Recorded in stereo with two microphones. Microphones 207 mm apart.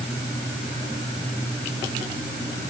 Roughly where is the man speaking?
No man speaking in this recording.